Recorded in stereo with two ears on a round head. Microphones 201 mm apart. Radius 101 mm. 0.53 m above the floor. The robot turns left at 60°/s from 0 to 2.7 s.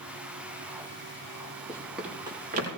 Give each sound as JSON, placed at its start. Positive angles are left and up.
{"t": 1.7, "sound": "running footsteps", "side_deg": 15, "distance_m": 6.5}